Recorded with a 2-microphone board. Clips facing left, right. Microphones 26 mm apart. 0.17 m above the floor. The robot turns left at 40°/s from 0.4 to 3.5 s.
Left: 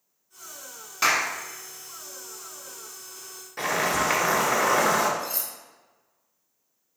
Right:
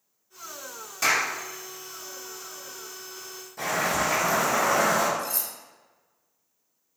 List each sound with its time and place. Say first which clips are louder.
1.0 s a clap: left 1 dB; 35° left (ahead or behind), 1.2 m; by 1.2 s 30° left (ahead or behind), 1.2 m
3.6 s boiling: left 1 dB; 60° left (ahead or behind), 1.4 m
5.2 s cutlery clinking: right 1 dB; 25° left (ahead or behind), 0.9 m